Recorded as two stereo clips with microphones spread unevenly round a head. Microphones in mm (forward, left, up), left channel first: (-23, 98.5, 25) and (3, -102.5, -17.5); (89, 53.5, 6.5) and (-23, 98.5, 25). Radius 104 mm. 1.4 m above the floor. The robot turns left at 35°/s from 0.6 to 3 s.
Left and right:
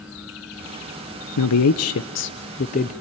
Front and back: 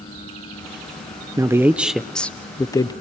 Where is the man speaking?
90° left, 0.7 m; by 2.9 s 35° left, 0.7 m.